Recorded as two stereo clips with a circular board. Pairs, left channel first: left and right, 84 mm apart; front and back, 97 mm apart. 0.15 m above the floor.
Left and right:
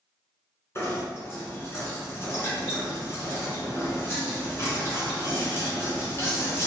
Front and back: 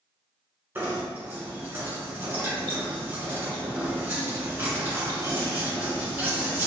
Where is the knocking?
125° left, 1.8 m.